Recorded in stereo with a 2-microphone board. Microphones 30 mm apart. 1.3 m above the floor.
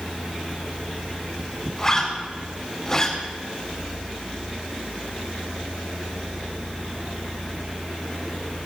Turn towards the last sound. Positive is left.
turn(degrees=20)  # may be behind; listen again after turning